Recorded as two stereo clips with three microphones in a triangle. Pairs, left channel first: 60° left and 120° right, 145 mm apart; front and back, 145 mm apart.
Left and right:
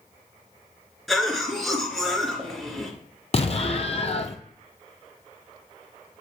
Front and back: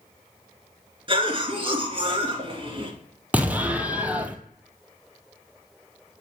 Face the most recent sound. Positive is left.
turn(degrees=100)